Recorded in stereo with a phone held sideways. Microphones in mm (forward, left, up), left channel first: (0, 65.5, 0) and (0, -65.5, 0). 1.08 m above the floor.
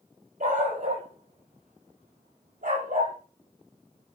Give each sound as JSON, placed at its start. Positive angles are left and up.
{"t": 0.4, "sound": "a dog barking", "side_deg": -70, "distance_m": 7.0}